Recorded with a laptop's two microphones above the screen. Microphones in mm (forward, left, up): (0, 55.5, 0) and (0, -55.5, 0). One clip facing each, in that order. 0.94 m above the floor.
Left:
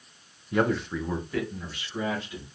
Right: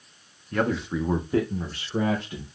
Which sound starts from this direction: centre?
A man speaking, at 0.5 s.